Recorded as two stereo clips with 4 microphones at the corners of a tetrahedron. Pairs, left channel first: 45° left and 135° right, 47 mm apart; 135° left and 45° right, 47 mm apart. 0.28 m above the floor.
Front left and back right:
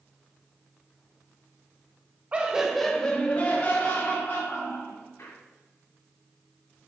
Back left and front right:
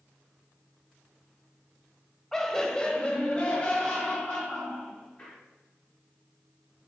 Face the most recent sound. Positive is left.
turn(degrees=70)